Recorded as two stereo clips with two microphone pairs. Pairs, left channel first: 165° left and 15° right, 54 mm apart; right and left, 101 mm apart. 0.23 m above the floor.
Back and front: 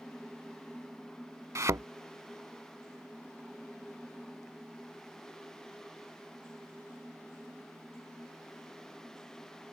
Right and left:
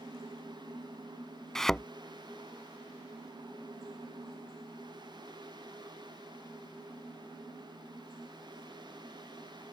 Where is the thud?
10° right.